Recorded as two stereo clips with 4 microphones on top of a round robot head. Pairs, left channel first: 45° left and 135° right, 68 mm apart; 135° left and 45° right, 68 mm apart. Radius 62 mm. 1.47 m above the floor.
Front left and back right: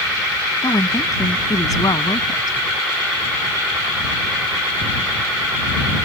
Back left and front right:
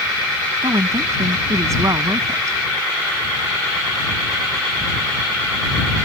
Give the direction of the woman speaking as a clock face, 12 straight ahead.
12 o'clock.